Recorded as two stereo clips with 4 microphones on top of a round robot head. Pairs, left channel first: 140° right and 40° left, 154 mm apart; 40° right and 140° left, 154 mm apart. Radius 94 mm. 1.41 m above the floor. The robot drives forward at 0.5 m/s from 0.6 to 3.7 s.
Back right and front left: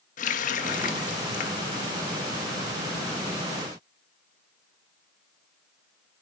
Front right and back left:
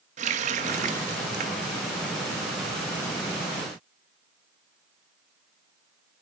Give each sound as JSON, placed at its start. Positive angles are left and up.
{"t": 0.2, "sound": "a running tap", "azimuth_deg": 180, "distance_m": 1.1}